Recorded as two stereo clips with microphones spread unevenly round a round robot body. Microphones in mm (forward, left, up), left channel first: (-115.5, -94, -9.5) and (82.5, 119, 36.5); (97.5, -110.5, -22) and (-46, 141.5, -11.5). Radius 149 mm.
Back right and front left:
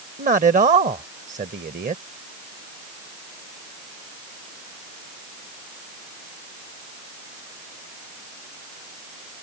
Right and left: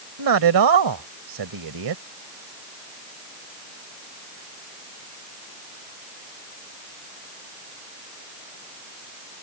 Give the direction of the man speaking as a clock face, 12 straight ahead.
8 o'clock.